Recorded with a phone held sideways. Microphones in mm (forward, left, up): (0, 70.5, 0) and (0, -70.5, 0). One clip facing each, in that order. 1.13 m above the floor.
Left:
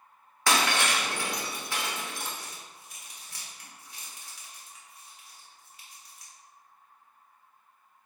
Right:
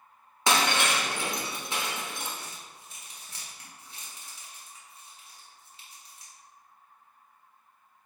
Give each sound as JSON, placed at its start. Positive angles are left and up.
{"t": 0.5, "sound": "breaking glass", "side_deg": -20, "distance_m": 0.7}
{"t": 2.3, "sound": "crumpling", "side_deg": -30, "distance_m": 1.2}